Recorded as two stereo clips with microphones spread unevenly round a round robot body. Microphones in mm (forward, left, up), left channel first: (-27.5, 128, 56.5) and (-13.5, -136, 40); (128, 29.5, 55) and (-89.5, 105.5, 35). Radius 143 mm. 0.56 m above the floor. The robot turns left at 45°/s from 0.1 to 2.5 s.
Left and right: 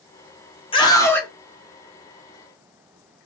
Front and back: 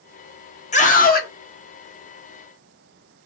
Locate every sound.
0.7 s a scream: 30° left, 1.1 m; by 1.3 s 5° left, 1.1 m